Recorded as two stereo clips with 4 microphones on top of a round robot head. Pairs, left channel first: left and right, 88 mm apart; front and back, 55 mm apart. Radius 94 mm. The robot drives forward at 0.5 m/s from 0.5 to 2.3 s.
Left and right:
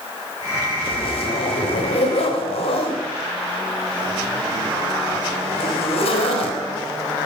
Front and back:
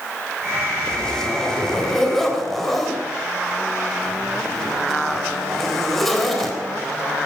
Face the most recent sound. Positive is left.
turn(degrees=85)